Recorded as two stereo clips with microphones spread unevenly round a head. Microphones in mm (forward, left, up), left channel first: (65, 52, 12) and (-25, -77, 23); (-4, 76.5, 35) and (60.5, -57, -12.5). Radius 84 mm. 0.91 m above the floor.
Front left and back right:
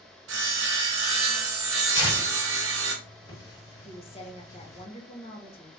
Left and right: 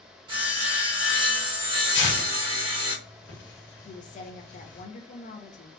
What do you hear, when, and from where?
0.3 s sawing: 130° right, 0.9 m
1.9 s tearing paper: 120° left, 1.4 m
3.9 s a woman speaking: 80° left, 0.8 m